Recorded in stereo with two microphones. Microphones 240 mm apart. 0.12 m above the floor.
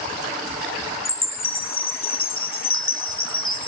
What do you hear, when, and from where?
1.1 s a chime: 55° left (ahead or behind), 0.9 m